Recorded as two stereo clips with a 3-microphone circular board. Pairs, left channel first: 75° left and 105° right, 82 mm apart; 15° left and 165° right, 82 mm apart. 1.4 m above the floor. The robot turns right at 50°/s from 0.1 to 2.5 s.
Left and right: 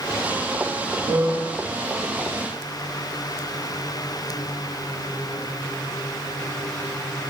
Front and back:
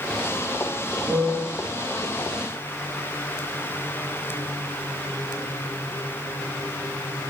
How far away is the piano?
About 1.2 m.